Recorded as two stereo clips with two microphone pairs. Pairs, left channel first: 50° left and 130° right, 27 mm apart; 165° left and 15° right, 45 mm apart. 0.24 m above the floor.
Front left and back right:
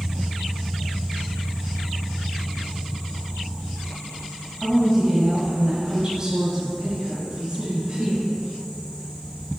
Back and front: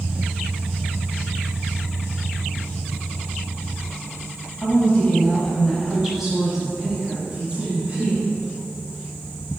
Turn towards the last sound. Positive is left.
turn(degrees=-70)